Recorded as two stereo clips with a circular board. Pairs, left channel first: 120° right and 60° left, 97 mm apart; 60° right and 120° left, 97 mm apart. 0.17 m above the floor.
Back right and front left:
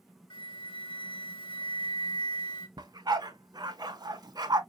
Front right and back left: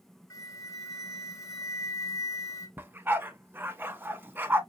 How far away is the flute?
About 1.0 m.